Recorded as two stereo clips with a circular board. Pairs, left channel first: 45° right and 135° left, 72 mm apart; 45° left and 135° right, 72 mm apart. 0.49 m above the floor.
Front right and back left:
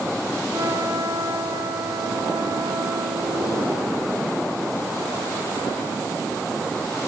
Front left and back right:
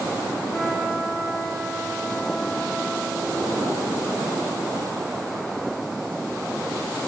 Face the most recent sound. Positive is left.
turn(degrees=125)